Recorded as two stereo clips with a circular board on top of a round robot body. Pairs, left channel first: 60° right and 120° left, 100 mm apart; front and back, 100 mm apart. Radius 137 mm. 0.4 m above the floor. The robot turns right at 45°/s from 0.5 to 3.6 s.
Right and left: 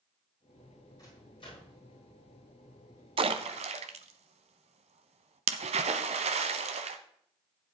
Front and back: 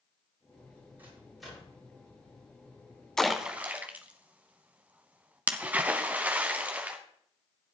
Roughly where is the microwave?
Right.